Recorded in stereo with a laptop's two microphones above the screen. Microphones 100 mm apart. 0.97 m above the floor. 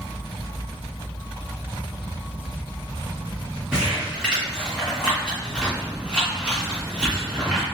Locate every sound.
3.7 s crumpling: 10° right (ahead or behind), 1.8 m